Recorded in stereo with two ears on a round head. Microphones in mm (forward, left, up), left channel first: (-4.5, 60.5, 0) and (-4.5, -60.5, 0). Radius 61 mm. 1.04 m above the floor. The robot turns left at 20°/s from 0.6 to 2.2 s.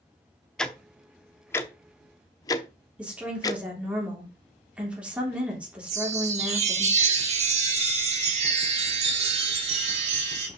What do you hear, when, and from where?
0.6 s ticking: 5° left (ahead or behind), 0.7 m; by 3.6 s 25° left (ahead or behind), 0.7 m
3.0 s a woman speaking: 10° right (ahead or behind), 3 m
5.9 s a chime: 50° right (ahead or behind), 1.8 m